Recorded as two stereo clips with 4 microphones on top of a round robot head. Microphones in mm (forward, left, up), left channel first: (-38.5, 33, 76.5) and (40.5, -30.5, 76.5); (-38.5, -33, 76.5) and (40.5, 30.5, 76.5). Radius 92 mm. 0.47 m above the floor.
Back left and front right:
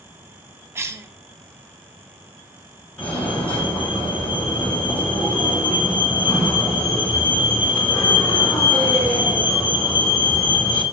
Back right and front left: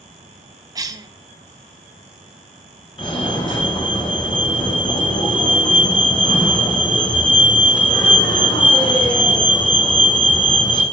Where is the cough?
10° left, 0.9 m.